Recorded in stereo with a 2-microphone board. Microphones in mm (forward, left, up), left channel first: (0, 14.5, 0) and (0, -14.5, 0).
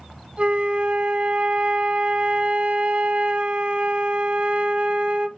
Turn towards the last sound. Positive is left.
turn(degrees=-35)  # may be behind; listen again after turning